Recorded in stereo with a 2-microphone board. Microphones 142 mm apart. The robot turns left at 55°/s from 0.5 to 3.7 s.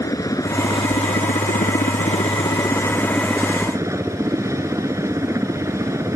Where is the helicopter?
155° left; by 6.2 s 20° right.